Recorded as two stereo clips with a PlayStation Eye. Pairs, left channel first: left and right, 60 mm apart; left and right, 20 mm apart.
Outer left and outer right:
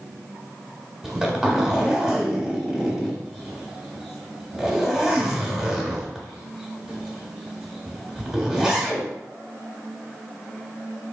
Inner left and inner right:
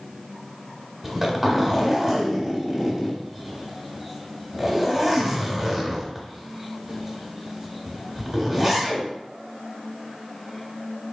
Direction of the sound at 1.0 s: 10° right (ahead or behind).